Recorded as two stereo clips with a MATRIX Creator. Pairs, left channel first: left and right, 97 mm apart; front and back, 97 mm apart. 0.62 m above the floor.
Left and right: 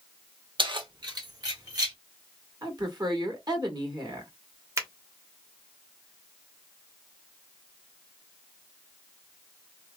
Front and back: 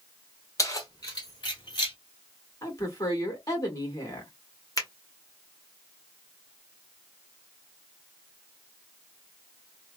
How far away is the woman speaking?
About 1.6 m.